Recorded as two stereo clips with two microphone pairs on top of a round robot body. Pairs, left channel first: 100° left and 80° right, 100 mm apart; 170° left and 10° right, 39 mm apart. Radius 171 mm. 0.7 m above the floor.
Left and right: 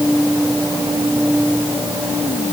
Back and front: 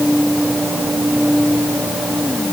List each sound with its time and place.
Only background noise.